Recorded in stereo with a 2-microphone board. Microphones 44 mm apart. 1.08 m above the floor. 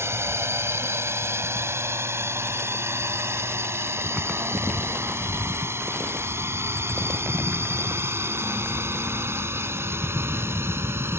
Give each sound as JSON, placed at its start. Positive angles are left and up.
{"t": 0.0, "sound": "a drone", "side_deg": -80}